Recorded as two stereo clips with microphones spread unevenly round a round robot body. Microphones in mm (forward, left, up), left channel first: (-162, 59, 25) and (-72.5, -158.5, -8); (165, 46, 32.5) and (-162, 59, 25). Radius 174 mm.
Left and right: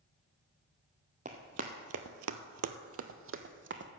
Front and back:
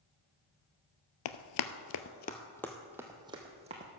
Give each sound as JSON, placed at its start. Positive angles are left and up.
{"t": 1.2, "sound": "running footsteps", "azimuth_deg": 5, "distance_m": 0.6}